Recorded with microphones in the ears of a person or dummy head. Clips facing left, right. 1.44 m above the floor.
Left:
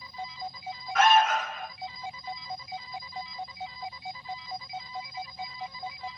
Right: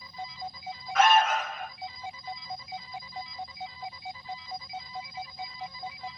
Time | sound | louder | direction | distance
0.9 | an alarm | even | 5° left (ahead or behind) | 1.3 m